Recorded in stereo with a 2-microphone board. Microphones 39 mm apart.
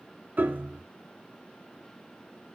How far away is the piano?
About 2.5 m.